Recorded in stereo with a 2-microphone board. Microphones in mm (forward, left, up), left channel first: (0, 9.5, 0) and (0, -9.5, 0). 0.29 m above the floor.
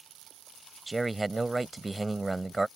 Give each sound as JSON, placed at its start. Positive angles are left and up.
{"t": 0.9, "sound": "a man speaking", "side_deg": 0}